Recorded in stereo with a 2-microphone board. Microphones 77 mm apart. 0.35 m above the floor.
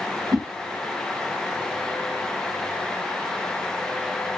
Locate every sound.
0.3 s a whoosh: 50° right (ahead or behind), 0.7 m